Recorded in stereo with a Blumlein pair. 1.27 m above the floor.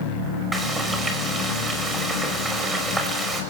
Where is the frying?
5° right, 5.5 m.